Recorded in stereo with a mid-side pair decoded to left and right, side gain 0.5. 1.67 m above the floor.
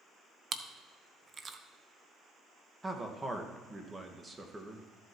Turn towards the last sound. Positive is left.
turn(degrees=-20)